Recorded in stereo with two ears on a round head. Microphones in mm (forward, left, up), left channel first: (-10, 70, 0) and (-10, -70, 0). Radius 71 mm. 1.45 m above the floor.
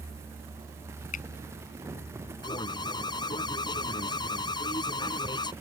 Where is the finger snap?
55° left (ahead or behind).